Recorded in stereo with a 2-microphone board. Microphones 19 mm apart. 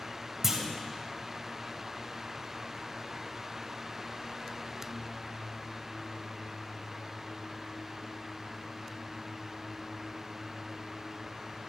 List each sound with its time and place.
0.4 s a clunk: 20° right (ahead or behind), 2 m